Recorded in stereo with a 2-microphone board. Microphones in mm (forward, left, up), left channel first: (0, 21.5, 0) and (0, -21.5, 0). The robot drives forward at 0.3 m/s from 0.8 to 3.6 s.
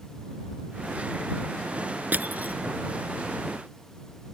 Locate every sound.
2.1 s crushing: 45° right (ahead or behind); by 2.6 s 40° right (ahead or behind)